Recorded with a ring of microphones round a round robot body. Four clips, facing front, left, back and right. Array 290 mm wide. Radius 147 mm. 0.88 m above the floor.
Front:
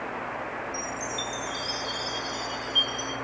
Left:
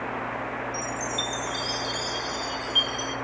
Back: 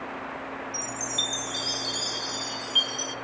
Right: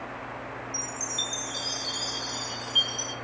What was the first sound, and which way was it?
A chime, 160° right.